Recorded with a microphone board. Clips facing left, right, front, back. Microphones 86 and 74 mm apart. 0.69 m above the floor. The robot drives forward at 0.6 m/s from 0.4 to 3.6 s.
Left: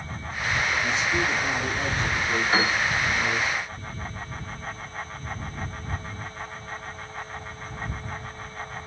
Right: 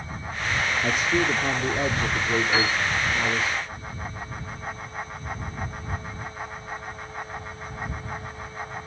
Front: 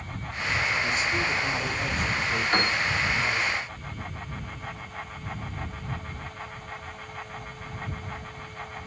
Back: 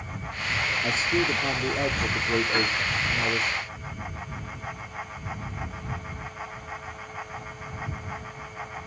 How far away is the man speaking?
About 1.1 m.